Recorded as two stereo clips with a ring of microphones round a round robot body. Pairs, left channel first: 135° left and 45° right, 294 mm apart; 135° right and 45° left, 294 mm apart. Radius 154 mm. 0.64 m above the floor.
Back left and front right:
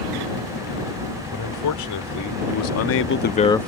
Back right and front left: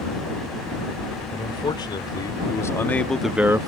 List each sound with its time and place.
1.3 s a man speaking: 150° left; by 3.7 s 50° left